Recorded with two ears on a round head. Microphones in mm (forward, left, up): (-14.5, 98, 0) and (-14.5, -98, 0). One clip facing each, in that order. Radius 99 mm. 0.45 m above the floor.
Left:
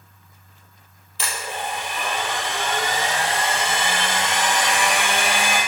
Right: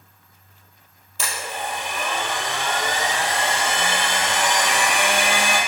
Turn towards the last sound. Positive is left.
turn(degrees=-40)  # may be behind; listen again after turning